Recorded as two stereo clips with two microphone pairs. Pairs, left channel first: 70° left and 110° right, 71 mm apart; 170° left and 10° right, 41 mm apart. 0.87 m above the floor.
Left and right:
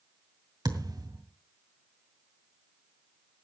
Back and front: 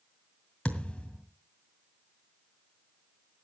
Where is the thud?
125° right, 2 m.